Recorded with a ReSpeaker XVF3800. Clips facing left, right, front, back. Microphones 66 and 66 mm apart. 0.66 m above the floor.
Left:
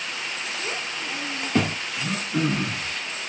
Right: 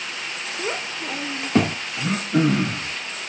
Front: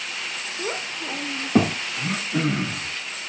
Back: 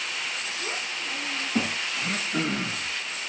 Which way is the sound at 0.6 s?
45° right.